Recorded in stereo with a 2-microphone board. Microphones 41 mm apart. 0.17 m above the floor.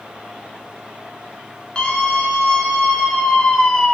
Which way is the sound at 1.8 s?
25° left (ahead or behind).